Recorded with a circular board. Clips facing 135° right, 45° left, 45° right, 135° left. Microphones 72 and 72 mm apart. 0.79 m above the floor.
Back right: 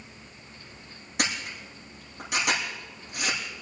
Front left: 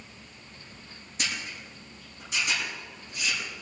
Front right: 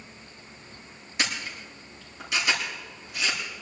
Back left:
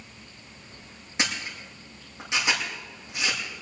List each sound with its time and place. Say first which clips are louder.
1.2 s a camera shutter: back right 4 dB, even; 160° right, 8.5 m